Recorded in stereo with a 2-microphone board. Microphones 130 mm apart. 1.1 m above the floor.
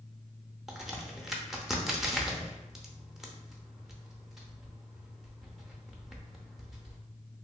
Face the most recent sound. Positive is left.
turn(degrees=0)  # may be behind; listen again after turning